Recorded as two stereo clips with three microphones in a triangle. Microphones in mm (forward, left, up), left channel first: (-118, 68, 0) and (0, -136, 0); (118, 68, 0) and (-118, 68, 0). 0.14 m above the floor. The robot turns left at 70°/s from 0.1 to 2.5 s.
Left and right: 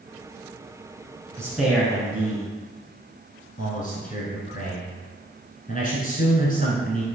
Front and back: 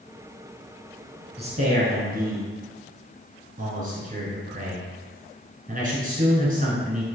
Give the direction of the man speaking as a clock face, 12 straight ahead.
4 o'clock.